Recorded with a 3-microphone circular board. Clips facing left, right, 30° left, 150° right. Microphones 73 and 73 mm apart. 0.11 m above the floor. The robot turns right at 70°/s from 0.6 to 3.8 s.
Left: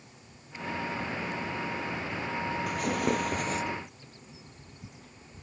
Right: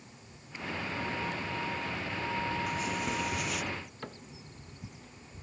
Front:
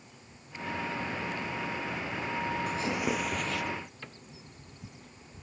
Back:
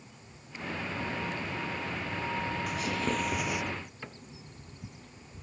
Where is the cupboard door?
70° right.